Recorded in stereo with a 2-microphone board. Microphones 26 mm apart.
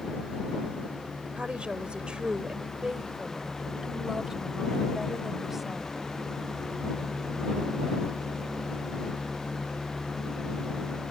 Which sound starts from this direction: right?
A woman speaking, at 1.4 s.